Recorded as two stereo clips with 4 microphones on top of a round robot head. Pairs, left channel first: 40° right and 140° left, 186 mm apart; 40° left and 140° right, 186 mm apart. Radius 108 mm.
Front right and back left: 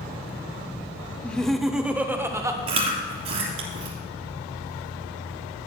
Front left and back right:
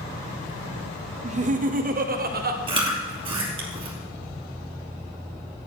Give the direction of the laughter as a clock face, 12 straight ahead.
4 o'clock.